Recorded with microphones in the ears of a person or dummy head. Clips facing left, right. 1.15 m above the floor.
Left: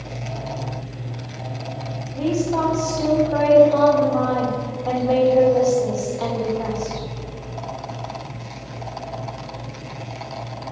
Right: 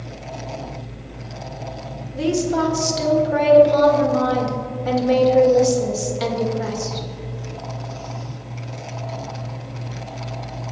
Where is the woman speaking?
35° right (ahead or behind), 1.6 m.